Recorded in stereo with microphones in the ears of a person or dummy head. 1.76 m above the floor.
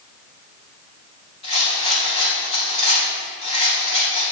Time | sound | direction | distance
1.4 | a rattle | 35° left (ahead or behind) | 1.7 m